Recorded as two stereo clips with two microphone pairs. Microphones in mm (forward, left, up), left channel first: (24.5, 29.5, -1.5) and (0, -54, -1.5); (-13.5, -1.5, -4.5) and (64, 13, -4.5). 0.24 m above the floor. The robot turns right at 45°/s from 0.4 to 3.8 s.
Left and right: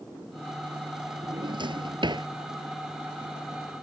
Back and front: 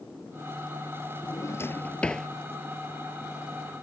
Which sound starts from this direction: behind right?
A drawer, at 1.2 s.